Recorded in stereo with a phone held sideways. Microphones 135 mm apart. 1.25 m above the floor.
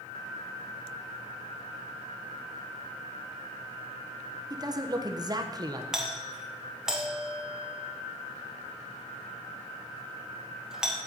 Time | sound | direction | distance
4.5 | a man speaking | 30° right (ahead or behind) | 1.0 m
5.9 | a doorbell | 5° right (ahead or behind) | 1.3 m